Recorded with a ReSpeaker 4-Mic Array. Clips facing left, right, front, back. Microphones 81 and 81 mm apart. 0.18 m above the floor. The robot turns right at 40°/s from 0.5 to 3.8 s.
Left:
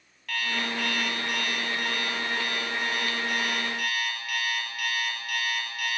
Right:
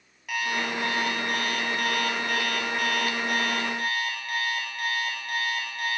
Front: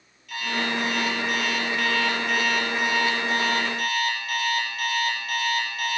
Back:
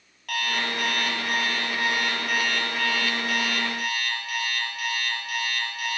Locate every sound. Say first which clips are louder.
0.3 s an alarm clock: right 2 dB, front 1 dB; 165° right, 2.5 m; by 6.0 s 35° right, 2.5 m